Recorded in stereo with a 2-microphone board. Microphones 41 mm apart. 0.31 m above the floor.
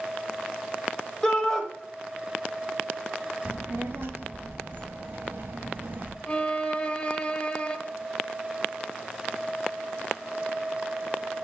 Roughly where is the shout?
Centre.